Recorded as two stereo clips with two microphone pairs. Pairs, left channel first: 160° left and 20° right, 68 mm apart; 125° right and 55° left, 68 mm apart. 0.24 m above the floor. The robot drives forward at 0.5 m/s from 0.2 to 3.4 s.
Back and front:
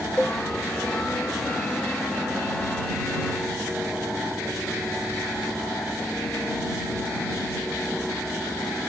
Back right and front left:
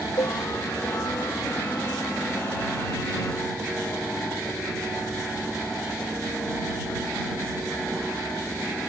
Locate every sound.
0.2 s a cowbell: 120° right; by 0.4 s 125° right